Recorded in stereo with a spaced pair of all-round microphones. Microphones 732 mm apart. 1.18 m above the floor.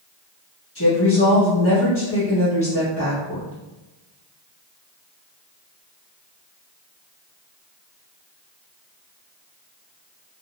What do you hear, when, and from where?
0.8 s a woman speaking: 15° left (ahead or behind), 1.3 m